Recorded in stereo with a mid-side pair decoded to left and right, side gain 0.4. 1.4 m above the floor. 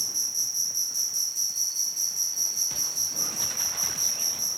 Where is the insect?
10° right.